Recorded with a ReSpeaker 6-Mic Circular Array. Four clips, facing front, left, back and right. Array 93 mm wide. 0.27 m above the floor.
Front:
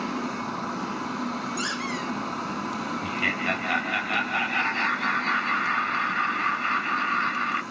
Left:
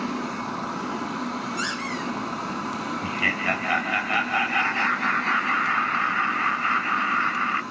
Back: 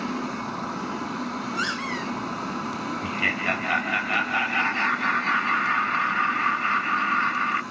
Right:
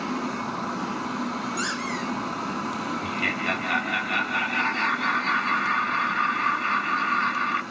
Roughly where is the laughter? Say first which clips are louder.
Left 1 dB, back 2 dB; behind left.